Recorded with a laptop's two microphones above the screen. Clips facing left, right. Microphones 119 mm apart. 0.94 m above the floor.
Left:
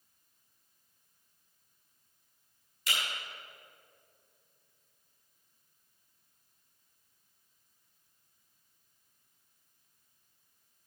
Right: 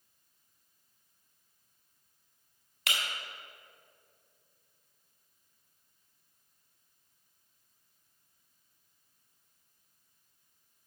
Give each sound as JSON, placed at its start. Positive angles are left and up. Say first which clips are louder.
{"t": 2.9, "sound": "breaking glass", "louder": "right 1 dB", "side_deg": -70, "distance_m": 3.5}